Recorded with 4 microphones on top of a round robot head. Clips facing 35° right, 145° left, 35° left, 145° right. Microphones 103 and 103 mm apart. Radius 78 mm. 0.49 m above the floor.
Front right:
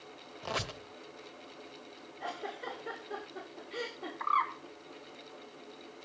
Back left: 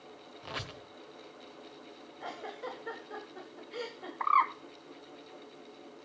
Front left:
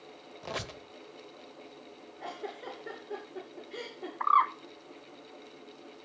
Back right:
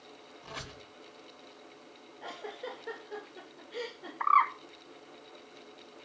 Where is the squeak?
20° left, 1.1 m.